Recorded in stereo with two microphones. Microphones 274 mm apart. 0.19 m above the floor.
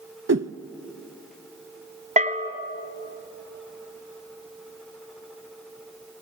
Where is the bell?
30° right (ahead or behind), 1.5 m.